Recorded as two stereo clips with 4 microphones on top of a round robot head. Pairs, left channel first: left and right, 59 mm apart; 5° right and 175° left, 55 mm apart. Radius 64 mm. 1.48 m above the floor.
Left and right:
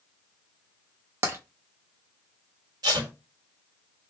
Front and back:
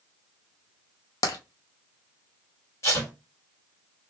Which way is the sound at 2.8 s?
55° right.